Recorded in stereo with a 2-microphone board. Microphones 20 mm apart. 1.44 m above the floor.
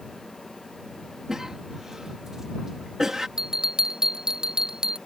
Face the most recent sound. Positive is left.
turn(degrees=-45)  # may be behind; listen again after turning